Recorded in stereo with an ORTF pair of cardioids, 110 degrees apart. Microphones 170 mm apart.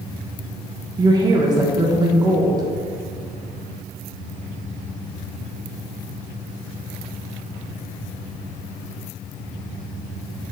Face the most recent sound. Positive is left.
turn(degrees=-25)